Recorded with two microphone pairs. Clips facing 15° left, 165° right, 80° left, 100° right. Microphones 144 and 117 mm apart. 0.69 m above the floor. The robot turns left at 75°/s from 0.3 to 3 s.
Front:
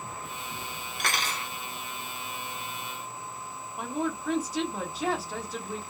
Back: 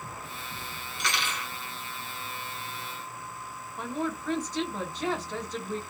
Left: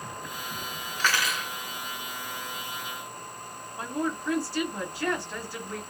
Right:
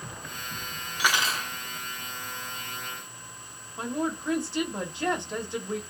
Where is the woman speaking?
65° right, 1.0 m.